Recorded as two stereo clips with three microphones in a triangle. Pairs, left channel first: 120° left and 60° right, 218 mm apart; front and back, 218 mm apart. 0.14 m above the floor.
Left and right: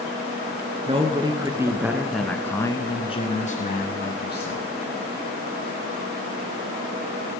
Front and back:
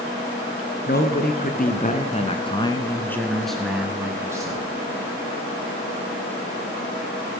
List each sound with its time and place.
0.9 s a man speaking: 5° right, 1.6 m; by 4.7 s 110° left, 1.8 m